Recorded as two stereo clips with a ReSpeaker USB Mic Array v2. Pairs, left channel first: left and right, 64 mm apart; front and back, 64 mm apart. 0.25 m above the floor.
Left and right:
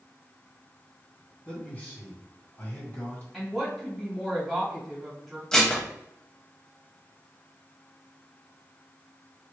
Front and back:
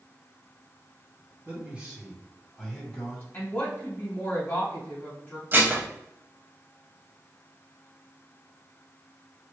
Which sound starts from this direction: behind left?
A man speaking, at 1.4 s.